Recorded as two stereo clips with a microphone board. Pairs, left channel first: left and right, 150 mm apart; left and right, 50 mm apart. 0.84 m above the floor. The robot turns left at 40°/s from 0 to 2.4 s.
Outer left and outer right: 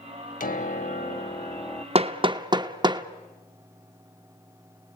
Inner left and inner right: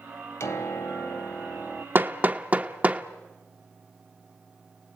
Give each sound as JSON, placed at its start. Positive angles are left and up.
{"t": 0.4, "sound": "a piano", "azimuth_deg": 70, "distance_m": 1.2}
{"t": 1.9, "sound": "hammering", "side_deg": -40, "distance_m": 0.9}